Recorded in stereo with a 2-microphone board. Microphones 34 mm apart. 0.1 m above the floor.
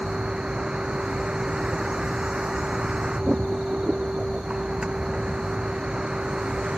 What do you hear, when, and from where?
0.0 s a vehicle: 25° right (ahead or behind)